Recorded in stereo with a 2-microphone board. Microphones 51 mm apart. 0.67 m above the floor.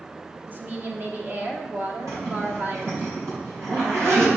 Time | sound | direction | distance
0.5 | a woman speaking | 35° right (ahead or behind) | 1.2 m
2.1 | a zipper | 80° right | 3 m